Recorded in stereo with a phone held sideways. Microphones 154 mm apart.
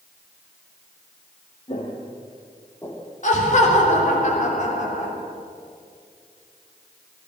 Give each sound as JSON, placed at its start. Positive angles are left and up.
{"t": 1.7, "sound": "footsteps", "side_deg": 40, "distance_m": 2.5}
{"t": 3.2, "sound": "laughter", "side_deg": 55, "distance_m": 3.0}